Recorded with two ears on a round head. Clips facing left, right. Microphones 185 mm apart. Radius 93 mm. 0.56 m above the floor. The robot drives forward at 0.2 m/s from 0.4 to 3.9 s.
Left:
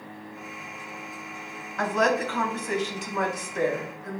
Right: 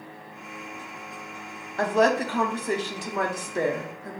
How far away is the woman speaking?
About 0.8 m.